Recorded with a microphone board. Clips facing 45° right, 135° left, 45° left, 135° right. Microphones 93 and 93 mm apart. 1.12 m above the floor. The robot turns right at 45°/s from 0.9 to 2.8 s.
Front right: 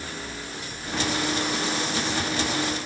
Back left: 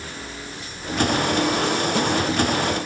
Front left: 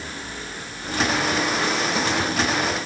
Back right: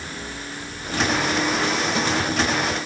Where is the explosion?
I don't hear an explosion.